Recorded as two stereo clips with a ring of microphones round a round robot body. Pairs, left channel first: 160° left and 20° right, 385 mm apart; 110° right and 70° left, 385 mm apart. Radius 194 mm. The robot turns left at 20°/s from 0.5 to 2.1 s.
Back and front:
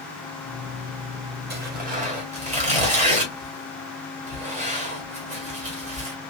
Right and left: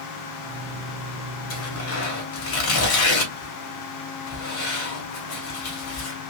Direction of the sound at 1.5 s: 75° right.